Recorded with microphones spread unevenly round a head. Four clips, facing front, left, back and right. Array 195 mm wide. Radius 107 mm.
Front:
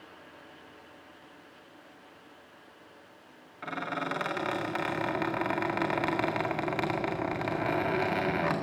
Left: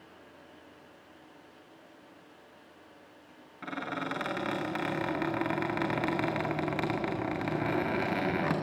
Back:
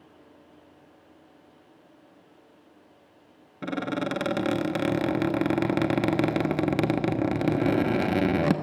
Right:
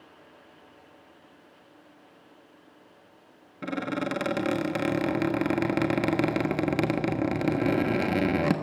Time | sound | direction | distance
3.6 | a squeak | 150° right | 1.5 m